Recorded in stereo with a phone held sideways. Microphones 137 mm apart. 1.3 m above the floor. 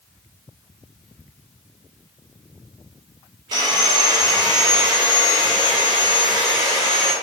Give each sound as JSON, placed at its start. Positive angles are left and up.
{"t": 3.5, "sound": "sawing", "side_deg": -35, "distance_m": 0.8}